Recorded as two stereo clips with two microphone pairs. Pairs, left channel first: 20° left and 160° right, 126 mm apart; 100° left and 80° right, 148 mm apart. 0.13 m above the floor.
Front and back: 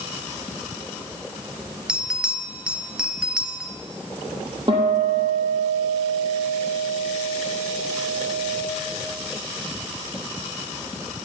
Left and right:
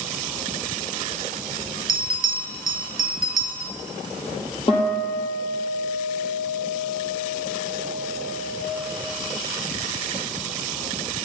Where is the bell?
120° left, 0.8 m.